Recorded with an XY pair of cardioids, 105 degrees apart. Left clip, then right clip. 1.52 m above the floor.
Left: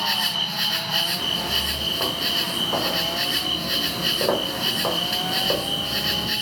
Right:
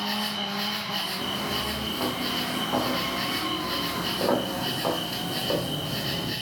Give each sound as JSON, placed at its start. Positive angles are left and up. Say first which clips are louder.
{"t": 0.0, "sound": "an insect", "louder": "left 6 dB", "azimuth_deg": 50, "distance_m": 1.7}
{"t": 1.2, "sound": "footsteps", "louder": "left 5 dB", "azimuth_deg": 15, "distance_m": 6.0}